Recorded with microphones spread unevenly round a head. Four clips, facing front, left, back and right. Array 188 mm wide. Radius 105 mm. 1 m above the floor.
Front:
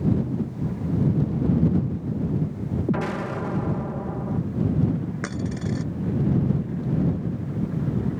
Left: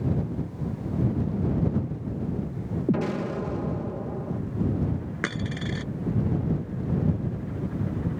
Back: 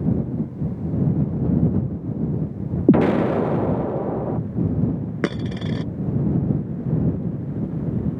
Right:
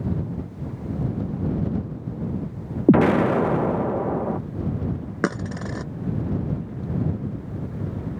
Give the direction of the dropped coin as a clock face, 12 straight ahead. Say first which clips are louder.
Right 7 dB, back 4 dB; 5 o'clock.